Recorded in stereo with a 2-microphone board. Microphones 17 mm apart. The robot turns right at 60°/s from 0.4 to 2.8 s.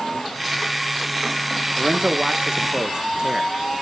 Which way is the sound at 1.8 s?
115° right.